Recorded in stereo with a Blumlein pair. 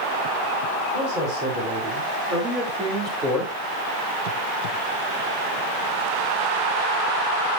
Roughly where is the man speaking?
Ahead right.